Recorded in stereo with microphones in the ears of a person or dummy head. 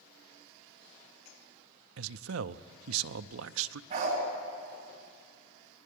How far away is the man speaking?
About 0.5 m.